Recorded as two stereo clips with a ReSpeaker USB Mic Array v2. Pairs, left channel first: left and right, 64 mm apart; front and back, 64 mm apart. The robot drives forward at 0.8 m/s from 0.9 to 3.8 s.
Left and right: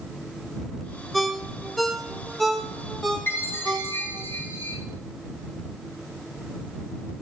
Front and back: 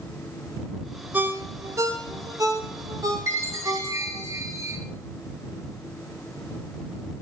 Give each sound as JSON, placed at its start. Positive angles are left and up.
{"t": 1.1, "sound": "a ringtone", "azimuth_deg": 180, "distance_m": 0.7}
{"t": 3.3, "sound": "a chime", "azimuth_deg": 140, "distance_m": 3.0}